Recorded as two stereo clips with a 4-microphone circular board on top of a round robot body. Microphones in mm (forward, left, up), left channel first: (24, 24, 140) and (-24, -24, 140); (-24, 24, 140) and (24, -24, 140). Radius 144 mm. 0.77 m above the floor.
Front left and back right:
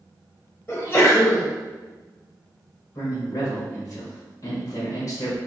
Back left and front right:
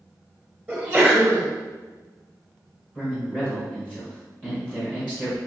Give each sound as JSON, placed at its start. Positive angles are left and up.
{"t": 0.7, "sound": "a sneeze", "azimuth_deg": 35, "distance_m": 1.1}
{"t": 3.0, "sound": "a man speaking", "azimuth_deg": 65, "distance_m": 1.2}